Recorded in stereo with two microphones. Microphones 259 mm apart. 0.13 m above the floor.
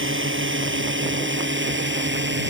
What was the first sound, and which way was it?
A drone, 50° right (ahead or behind).